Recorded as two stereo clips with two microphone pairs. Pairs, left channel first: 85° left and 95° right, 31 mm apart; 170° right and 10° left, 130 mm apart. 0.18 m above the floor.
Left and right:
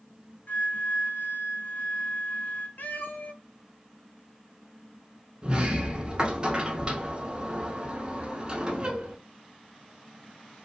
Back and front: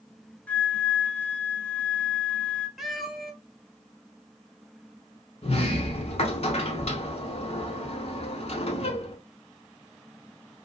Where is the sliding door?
150° right, 0.6 m.